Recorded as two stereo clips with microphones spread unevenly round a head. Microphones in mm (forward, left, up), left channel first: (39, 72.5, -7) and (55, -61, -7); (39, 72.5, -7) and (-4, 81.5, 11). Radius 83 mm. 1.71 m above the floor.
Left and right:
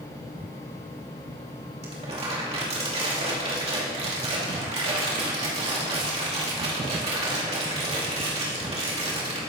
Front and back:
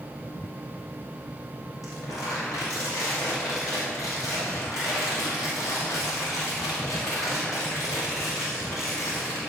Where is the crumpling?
45° right, 2.5 m.